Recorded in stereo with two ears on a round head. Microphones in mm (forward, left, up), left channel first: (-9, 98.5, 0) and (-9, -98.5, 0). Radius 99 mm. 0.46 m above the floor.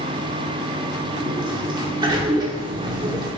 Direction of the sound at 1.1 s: 20° right (ahead or behind).